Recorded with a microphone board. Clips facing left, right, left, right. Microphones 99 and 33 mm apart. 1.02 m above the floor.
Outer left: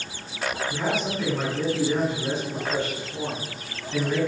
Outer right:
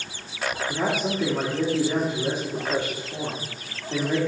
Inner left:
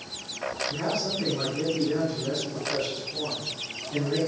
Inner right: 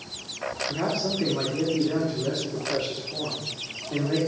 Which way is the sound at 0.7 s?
45° right (ahead or behind).